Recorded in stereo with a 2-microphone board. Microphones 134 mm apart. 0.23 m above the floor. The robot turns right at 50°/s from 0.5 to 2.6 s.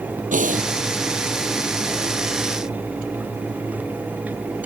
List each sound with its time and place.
0.3 s breathing: 80° right; by 0.7 s 75° right (ahead or behind)